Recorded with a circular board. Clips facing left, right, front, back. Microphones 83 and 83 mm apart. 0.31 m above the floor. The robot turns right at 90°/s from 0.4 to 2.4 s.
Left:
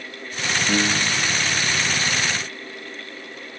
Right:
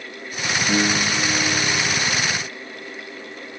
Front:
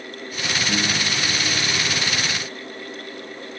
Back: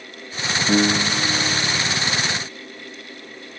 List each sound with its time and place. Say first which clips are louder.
0.7 s a piano: right 2 dB, back 9 dB; 175° left; by 2.0 s 60° right